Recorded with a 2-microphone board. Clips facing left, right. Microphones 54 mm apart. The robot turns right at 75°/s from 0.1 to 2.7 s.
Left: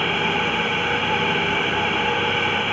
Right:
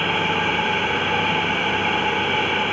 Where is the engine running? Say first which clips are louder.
Even; 110° right, 1.7 m; by 2.7 s 85° left, 1.7 m.